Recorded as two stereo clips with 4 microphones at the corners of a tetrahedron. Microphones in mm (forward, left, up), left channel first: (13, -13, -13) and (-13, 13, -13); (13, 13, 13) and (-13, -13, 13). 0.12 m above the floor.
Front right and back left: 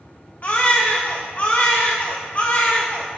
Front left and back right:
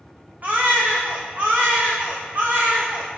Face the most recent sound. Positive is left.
turn(degrees=-90)